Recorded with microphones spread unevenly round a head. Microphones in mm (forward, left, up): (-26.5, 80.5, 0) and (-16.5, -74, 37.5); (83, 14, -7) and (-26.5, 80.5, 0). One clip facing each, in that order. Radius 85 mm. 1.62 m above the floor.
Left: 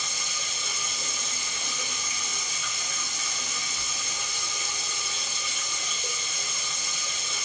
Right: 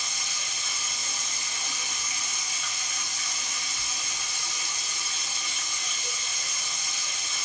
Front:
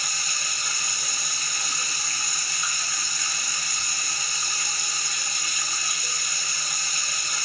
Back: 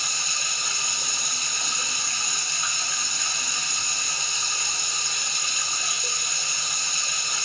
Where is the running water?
80° left, 1.0 m.